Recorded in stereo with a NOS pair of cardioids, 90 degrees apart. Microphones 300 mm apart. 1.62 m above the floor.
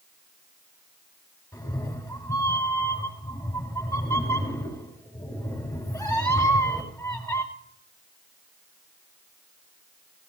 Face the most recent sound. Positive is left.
turn(degrees=10)